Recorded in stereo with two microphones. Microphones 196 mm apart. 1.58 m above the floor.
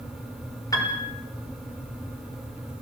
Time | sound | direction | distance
0.7 | a piano | 15° left (ahead or behind) | 5 m